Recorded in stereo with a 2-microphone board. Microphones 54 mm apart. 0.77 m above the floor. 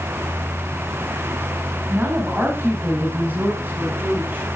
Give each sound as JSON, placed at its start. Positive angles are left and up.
{"t": 1.9, "sound": "a woman speaking", "side_deg": -35, "distance_m": 6.0}